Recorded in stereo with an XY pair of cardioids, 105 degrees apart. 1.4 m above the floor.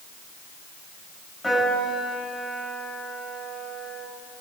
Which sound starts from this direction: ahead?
A piano, at 1.4 s.